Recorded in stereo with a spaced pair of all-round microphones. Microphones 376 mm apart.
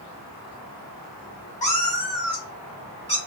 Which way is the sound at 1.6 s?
20° left (ahead or behind).